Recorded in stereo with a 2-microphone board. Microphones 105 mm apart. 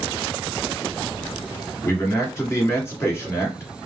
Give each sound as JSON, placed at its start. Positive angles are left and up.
{"t": 1.8, "sound": "a man speaking", "side_deg": 25, "distance_m": 1.6}